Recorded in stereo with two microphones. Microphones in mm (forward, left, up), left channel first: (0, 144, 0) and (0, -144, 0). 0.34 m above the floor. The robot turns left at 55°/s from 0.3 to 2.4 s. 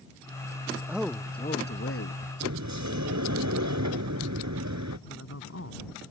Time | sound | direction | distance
0.9 | a man speaking | 170° right | ?
2.4 | a sliding door | 75° right (ahead or behind) | ?
5.1 | a man speaking | 55° left (ahead or behind) | ?